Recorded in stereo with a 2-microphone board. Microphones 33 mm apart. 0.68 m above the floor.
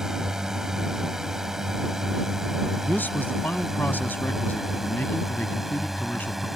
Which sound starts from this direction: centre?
A drone, at 0.0 s.